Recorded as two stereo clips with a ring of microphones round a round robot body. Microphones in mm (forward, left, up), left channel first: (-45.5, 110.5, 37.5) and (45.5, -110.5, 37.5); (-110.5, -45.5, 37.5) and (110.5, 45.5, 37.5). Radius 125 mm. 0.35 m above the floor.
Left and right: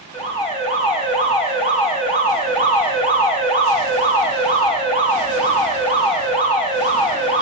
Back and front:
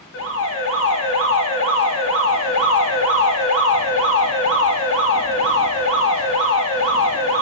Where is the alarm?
Straight behind, 3 m.